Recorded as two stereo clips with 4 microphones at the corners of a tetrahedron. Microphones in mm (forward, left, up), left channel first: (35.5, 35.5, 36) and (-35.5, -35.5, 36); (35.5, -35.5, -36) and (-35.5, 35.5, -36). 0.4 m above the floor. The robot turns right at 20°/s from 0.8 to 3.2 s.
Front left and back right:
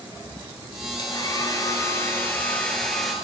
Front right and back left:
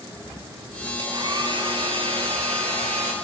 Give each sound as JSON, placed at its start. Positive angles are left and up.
{"t": 1.0, "sound": "a hair dryer", "azimuth_deg": 90, "distance_m": 6.0}